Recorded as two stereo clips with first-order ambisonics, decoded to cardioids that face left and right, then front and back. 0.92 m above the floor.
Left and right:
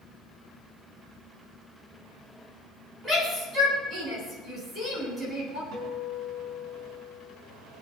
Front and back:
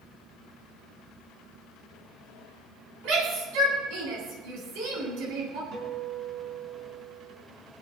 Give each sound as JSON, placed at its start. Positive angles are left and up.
{"t": 3.0, "sound": "a shout", "azimuth_deg": -160, "distance_m": 9.0}
{"t": 5.7, "sound": "a guitar", "azimuth_deg": -130, "distance_m": 5.0}